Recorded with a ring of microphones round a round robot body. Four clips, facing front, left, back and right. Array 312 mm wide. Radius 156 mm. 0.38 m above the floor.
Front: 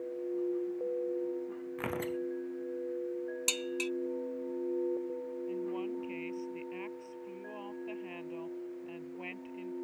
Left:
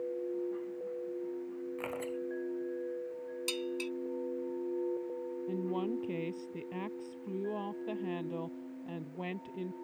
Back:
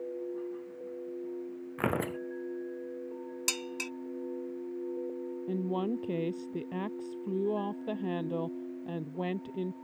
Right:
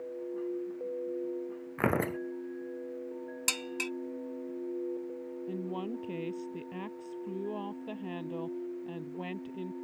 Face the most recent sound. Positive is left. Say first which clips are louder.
# left 2 dB, back 6 dB
turn(degrees=180)